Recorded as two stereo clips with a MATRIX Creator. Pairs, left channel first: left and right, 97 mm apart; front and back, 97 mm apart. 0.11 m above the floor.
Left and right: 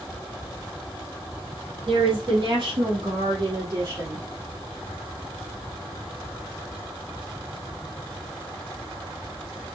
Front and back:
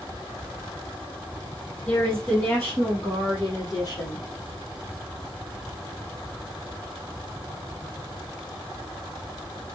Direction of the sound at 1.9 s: 70° right.